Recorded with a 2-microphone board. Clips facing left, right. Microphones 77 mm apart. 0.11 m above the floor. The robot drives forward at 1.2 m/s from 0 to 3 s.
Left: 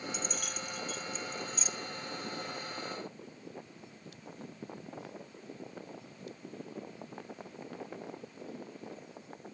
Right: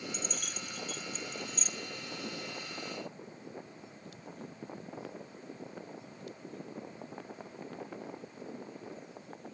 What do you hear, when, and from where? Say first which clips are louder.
0.1 s keys jangling: left 2 dB; 5° left (ahead or behind), 1.2 m; by 1.7 s centre (ahead or behind), 1.7 m